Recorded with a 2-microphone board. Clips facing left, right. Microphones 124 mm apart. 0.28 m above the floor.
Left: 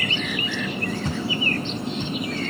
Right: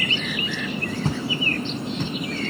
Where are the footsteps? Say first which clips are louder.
Even; 30° right (ahead or behind), 1.1 m; by 2.1 s 80° right, 1.0 m.